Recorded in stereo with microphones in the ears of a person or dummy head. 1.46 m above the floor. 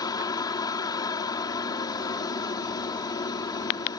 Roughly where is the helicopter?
Left.